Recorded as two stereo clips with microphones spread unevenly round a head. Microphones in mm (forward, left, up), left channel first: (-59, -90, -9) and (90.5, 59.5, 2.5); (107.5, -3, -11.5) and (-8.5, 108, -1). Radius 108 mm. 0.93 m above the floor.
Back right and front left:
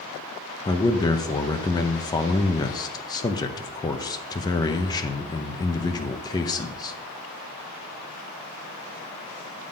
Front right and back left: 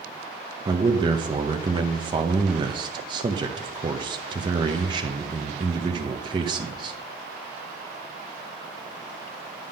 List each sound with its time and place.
0.7 s a man speaking: straight behind, 0.6 m